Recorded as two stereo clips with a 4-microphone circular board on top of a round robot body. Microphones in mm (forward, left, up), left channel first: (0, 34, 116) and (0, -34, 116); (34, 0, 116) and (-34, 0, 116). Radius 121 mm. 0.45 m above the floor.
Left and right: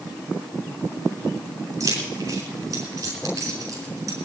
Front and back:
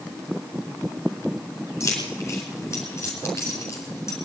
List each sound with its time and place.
1.8 s keys jangling: 50° right, 4.5 m